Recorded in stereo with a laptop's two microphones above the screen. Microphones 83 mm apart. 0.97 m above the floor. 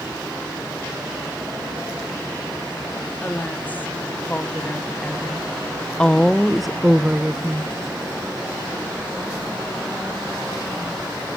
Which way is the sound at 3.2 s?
20° left (ahead or behind).